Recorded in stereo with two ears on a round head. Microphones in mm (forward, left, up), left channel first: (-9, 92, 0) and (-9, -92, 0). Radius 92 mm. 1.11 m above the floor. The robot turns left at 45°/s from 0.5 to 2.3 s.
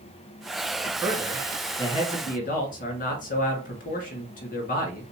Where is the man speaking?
165° right, 1.7 m; by 5.0 s 135° left, 1.7 m.